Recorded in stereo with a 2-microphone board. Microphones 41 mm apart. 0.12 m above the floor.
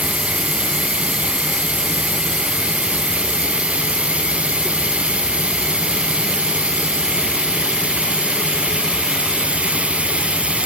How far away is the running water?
About 0.8 m.